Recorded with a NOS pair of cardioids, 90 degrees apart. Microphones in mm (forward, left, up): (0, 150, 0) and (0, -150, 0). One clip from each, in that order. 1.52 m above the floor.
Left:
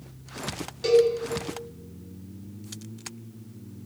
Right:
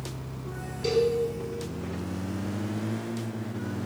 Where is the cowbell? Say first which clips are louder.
Left 5 dB; 60° left, 3 m.